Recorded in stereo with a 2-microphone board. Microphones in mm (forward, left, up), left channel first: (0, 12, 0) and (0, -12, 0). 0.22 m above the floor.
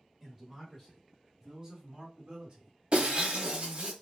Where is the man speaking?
5° left (ahead or behind), 2.0 m; by 3.9 s 45° right (ahead or behind), 2.5 m.